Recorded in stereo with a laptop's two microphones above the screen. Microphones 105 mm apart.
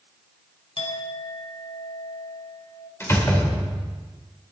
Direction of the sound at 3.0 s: 25° left (ahead or behind).